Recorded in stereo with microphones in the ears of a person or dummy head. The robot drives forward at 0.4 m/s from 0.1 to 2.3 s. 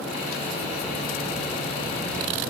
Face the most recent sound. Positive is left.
No sound to turn to.